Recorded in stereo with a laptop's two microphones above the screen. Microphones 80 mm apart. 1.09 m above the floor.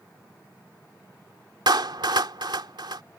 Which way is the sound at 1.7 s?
75° right (ahead or behind).